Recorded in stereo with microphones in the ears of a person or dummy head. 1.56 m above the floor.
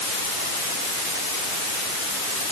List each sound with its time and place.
Only background noise.